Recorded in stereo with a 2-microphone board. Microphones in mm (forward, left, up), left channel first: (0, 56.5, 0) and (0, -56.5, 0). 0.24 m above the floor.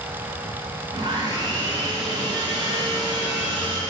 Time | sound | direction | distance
0.9 | sawing | 40° right (ahead or behind) | 1.9 m